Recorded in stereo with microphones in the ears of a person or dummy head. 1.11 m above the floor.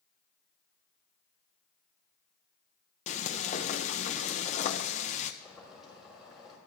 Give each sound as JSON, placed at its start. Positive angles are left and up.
{"t": 3.1, "sound": "frying", "side_deg": 30, "distance_m": 0.6}
{"t": 5.4, "sound": "boiling", "side_deg": 0, "distance_m": 4.0}